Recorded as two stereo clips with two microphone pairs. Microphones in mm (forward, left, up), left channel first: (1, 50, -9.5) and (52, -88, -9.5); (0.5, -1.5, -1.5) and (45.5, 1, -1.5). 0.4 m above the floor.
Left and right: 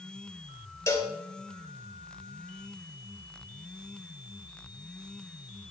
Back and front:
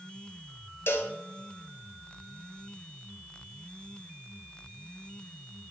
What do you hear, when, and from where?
0.9 s a cowbell: straight behind, 0.9 m